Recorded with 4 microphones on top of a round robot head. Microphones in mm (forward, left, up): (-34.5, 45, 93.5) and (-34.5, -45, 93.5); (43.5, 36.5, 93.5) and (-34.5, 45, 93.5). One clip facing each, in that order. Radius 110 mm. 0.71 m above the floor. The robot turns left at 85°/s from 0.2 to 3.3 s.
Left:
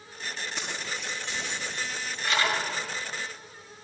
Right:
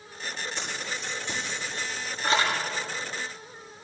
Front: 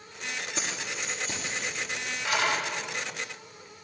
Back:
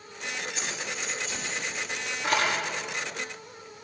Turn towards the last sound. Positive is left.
turn(degrees=135)